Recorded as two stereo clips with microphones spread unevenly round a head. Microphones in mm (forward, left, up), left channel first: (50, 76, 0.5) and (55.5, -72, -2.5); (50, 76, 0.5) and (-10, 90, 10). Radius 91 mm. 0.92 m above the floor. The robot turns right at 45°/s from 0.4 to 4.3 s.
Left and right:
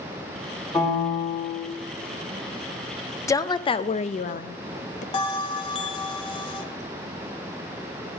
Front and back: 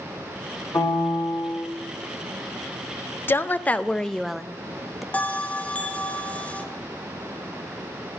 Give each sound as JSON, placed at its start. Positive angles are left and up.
{"t": 0.7, "sound": "a piano", "azimuth_deg": 10, "distance_m": 3.5}
{"t": 3.3, "sound": "a woman speaking", "azimuth_deg": 25, "distance_m": 0.5}
{"t": 5.1, "sound": "a bell", "azimuth_deg": 55, "distance_m": 1.0}